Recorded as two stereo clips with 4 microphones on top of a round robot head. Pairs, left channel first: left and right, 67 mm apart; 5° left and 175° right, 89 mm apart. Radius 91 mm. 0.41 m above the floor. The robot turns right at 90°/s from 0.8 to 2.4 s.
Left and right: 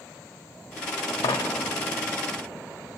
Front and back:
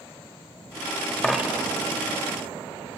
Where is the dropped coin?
85° left, 0.9 m; by 1.7 s 130° left, 0.9 m.